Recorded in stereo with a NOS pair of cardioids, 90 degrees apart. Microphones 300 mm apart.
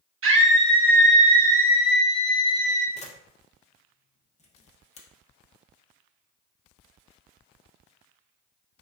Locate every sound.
0.2 s a scream: 45° right, 1.4 m; by 2.9 s 25° left, 1.3 m
3.0 s a camera shutter: 20° left, 1.0 m